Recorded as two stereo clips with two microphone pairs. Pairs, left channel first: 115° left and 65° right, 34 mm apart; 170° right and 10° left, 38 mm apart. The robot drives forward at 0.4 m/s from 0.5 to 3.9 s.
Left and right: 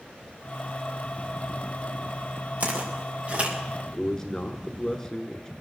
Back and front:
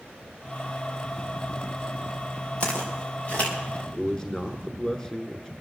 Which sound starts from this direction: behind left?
A man speaking, at 3.9 s.